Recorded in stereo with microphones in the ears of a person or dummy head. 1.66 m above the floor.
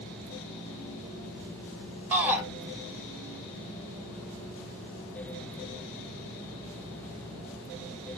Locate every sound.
2.1 s a shout: 15° right (ahead or behind), 1.8 m